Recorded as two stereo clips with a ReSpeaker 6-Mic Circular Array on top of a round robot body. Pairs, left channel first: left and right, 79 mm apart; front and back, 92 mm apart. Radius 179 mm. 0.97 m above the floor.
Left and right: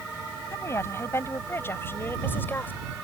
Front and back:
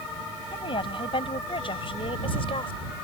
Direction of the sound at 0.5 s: 35° left.